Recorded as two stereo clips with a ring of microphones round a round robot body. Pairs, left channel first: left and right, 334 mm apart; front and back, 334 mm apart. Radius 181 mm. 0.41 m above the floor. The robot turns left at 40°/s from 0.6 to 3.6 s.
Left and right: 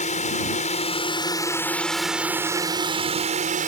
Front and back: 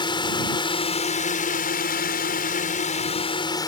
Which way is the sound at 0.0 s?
55° left.